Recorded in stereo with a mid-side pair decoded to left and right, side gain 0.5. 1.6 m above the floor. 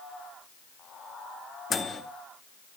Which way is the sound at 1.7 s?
35° left.